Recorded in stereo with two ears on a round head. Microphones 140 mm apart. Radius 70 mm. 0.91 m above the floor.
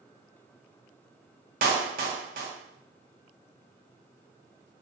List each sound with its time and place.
1.6 s a clap: 60° right (ahead or behind), 1.7 m